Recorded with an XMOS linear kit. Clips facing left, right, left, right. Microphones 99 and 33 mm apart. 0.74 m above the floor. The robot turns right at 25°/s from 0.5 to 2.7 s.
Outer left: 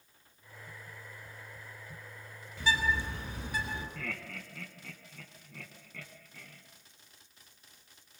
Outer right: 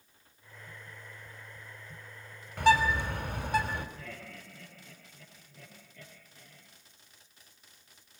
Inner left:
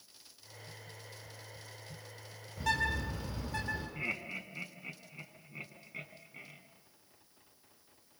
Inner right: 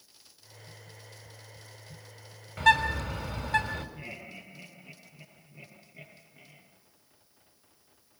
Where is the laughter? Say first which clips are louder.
Outer left 4 dB, inner left 5 dB; 80° left, 6 m.